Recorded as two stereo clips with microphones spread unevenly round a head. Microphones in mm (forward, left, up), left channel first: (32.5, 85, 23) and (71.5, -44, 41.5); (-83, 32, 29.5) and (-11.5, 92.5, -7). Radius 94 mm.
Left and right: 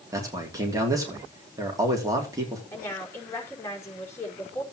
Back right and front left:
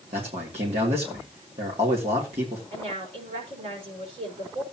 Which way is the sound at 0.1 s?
10° right.